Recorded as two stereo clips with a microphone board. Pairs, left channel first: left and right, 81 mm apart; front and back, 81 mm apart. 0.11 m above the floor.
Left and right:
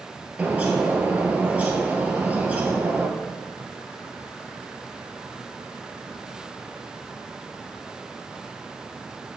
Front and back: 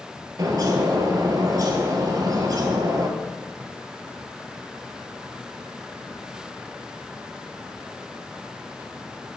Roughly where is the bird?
Behind.